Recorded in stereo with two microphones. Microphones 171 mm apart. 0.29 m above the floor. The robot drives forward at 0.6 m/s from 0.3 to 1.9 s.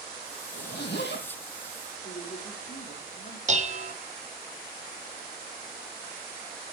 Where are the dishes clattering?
45° right (ahead or behind), 0.7 m.